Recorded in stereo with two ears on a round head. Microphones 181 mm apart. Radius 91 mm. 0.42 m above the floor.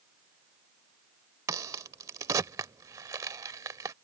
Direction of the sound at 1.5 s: 15° right (ahead or behind).